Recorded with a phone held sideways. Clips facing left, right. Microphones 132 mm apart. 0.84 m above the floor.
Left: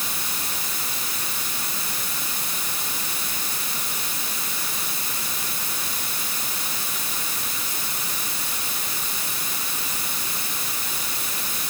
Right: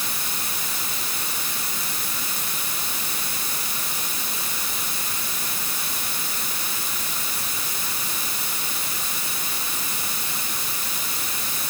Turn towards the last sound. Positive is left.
No sound to turn to.